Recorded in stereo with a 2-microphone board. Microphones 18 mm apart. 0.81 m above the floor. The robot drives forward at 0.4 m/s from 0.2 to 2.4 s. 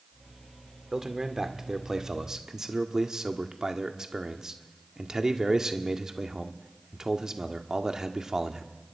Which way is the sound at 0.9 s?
25° right (ahead or behind).